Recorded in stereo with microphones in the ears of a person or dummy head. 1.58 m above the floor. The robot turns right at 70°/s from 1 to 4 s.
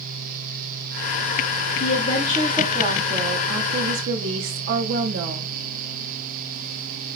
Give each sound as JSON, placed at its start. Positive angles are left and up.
{"t": 1.8, "sound": "a woman speaking", "azimuth_deg": 135, "distance_m": 1.0}